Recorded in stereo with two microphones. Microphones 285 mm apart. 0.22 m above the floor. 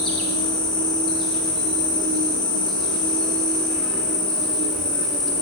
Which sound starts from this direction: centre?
An insect, at 0.0 s.